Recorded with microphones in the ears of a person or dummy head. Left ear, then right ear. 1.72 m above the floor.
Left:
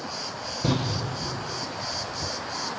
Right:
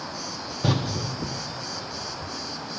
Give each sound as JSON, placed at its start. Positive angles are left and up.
{"t": 0.6, "sound": "a door slam", "side_deg": -20, "distance_m": 0.7}